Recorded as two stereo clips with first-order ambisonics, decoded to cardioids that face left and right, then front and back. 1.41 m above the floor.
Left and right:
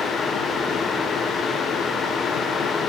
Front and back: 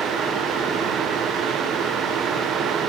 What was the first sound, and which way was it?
Only background noise.